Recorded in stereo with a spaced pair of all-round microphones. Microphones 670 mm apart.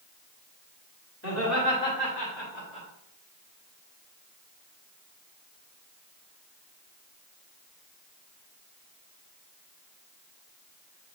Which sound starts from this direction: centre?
Laughter, at 1.2 s.